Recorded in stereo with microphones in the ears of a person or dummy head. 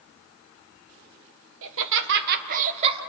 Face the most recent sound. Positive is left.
turn(degrees=-25)  # may be behind; listen again after turning